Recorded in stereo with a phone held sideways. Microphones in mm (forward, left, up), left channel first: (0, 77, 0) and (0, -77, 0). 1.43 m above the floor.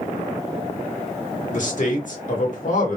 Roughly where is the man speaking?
Left.